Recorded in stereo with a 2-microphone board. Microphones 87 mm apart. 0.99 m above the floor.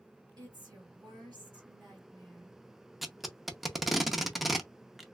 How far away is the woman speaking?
About 2.5 m.